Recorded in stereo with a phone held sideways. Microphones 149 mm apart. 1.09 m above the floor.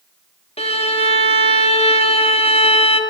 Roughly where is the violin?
Left.